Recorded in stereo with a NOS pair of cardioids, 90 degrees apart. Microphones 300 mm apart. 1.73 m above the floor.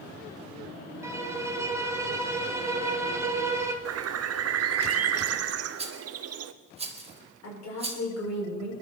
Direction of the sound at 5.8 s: 20° right.